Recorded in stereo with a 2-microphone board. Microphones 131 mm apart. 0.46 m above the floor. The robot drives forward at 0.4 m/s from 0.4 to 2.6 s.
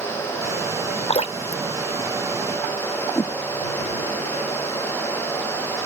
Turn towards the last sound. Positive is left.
turn(degrees=20)  # may be behind; listen again after turning